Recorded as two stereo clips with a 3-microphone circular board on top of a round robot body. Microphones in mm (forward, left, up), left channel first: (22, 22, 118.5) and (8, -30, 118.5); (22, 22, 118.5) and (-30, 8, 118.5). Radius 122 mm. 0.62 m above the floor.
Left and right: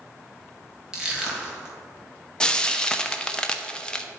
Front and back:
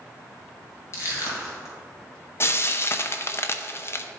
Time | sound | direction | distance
0.9 | crushing | 30° right | 1.7 m
2.4 | frying | 5° left | 0.8 m